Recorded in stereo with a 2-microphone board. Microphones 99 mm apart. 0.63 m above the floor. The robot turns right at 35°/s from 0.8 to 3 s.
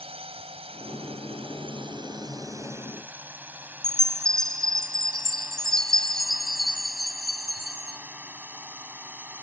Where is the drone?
70° right (ahead or behind); by 9.4 s 15° right (ahead or behind).